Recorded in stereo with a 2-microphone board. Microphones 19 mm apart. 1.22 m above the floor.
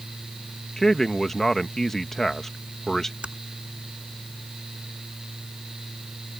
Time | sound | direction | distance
0.8 | a man speaking | 25° left (ahead or behind) | ?
3.2 | typing on a keyboard | 60° right (ahead or behind) | ?